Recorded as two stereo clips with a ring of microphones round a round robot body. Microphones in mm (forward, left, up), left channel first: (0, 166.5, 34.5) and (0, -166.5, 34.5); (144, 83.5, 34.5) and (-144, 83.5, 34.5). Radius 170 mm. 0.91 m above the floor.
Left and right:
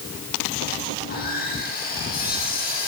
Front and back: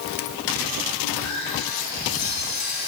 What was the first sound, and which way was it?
Sawing, 25° left.